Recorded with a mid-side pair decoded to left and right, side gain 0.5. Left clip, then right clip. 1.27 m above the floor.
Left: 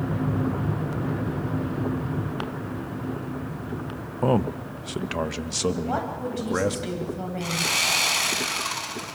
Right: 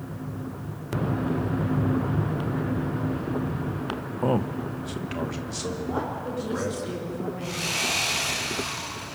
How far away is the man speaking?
About 0.9 m.